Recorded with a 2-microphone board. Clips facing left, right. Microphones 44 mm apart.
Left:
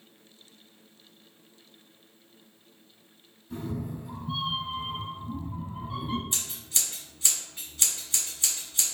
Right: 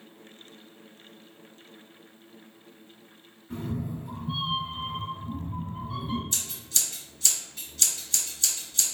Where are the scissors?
20° left (ahead or behind), 1.7 m.